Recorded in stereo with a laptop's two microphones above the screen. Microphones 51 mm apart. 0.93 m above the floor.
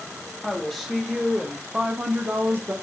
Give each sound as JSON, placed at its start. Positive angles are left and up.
{"t": 0.4, "sound": "a woman speaking", "side_deg": 0, "distance_m": 1.4}